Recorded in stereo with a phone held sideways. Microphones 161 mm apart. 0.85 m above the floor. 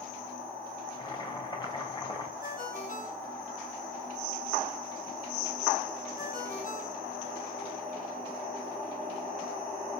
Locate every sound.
0.9 s boiling: 25° left (ahead or behind), 3 m
2.4 s a ringtone: 60° left (ahead or behind), 4 m